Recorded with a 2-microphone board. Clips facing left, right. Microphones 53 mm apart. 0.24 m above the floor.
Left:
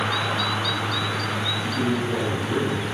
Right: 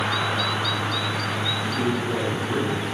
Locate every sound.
1.6 s a man speaking: centre (ahead or behind), 4 m